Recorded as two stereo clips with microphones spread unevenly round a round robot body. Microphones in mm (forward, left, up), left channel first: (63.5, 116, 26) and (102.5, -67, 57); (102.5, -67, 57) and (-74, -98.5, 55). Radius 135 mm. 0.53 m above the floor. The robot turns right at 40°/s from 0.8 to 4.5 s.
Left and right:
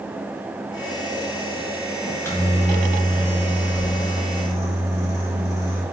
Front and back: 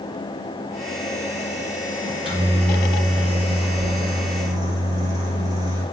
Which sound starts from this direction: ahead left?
A microwave, at 2.0 s.